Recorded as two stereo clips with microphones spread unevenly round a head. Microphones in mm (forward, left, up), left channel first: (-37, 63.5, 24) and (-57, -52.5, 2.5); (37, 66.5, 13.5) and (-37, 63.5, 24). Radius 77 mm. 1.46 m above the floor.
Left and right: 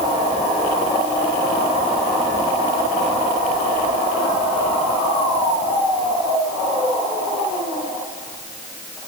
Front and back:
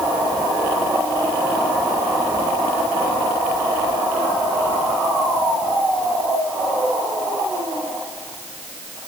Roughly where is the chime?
No chime in this recording.